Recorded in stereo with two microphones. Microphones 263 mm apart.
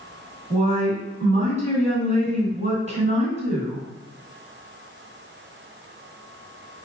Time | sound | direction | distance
0.5 | a woman speaking | 25° right (ahead or behind) | 1.8 m